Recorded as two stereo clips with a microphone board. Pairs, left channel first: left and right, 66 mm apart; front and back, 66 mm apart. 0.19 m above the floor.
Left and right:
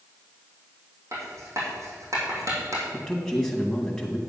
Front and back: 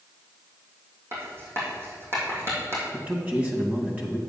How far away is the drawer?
No drawer in this recording.